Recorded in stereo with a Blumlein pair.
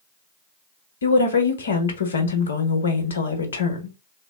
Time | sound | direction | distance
1.0 | a woman speaking | 70° left | 1.0 m